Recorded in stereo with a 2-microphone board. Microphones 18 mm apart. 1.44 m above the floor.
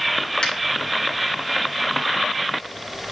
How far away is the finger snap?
About 2.5 m.